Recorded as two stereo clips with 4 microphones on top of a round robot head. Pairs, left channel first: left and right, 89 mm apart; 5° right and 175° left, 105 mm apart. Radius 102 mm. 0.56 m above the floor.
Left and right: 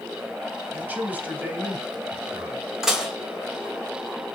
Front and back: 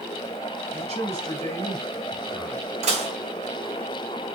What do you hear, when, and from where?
0.7 s a man speaking: 160° right, 3.5 m
2.8 s dishes clattering: 175° right, 2 m